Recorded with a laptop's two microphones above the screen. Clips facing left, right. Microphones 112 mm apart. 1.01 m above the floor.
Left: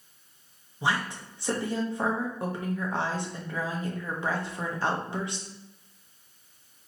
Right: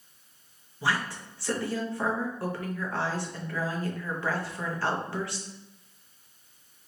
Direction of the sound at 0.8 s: 20° left (ahead or behind).